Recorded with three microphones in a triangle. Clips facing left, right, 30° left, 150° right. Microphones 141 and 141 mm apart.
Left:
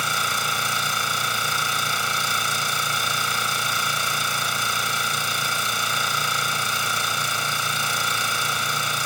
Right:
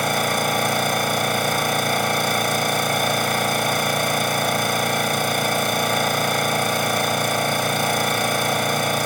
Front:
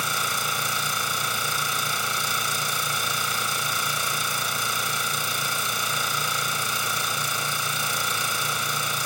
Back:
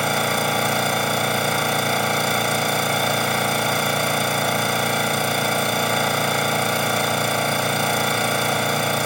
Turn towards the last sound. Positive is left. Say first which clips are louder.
# right 7 dB, back 10 dB
turn(degrees=-125)